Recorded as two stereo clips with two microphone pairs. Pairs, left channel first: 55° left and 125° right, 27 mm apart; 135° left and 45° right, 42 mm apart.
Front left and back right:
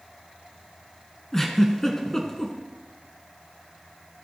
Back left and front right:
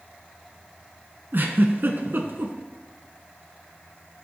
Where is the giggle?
15° right, 1.2 m.